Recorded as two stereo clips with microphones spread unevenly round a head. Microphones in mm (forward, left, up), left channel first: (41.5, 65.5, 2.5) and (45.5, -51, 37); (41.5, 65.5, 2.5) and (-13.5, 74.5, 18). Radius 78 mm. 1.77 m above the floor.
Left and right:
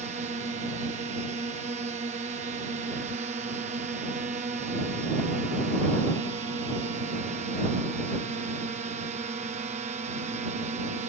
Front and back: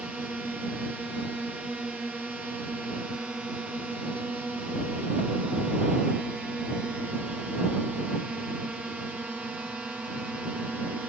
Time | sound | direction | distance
0.0 | a drone | 110° right | ?